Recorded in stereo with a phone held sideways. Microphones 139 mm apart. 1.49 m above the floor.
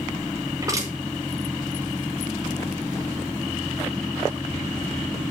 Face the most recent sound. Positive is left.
turn(degrees=-25)  # may be behind; listen again after turning